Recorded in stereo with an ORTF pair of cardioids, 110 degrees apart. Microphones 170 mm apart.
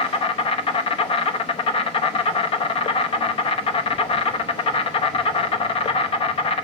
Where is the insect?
40° left, 0.8 m.